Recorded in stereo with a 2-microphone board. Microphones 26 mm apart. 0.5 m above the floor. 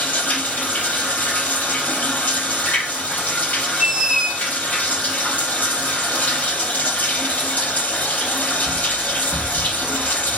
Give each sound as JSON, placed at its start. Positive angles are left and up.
{"t": 0.0, "sound": "running water", "side_deg": 85, "distance_m": 4.0}
{"t": 3.8, "sound": "a squeak", "side_deg": -30, "distance_m": 1.4}